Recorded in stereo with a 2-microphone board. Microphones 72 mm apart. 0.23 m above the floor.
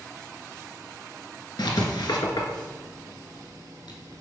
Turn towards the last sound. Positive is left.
turn(degrees=80)